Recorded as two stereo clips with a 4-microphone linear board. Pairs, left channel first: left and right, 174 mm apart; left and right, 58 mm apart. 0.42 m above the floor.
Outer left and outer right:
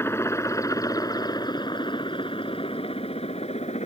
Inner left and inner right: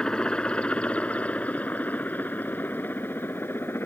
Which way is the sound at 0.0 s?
15° left (ahead or behind).